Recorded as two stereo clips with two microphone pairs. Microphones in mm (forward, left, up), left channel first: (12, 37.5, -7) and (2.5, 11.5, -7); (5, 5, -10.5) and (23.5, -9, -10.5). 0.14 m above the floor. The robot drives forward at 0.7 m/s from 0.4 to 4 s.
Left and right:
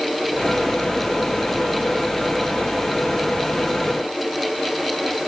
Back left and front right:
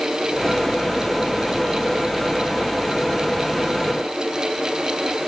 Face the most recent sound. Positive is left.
No sound to turn to.